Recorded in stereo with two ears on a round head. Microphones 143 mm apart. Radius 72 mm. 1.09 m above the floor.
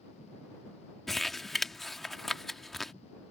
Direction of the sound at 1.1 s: Centre (ahead or behind).